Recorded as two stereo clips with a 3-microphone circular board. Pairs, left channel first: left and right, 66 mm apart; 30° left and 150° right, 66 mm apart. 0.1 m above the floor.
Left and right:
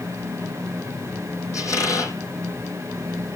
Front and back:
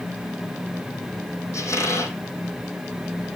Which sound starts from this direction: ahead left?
A squeak, at 1.5 s.